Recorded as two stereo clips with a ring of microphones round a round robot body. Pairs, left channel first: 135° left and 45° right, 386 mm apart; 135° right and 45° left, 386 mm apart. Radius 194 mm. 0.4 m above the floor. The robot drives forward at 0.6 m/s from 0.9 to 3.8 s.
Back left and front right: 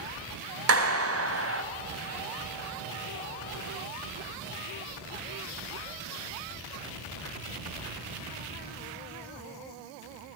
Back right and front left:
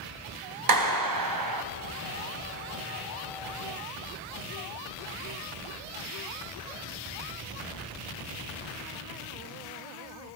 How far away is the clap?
About 3 m.